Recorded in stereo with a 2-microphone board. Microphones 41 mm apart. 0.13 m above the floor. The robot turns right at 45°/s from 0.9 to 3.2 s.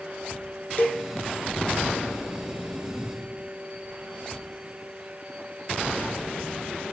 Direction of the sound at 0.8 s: 45° left (ahead or behind).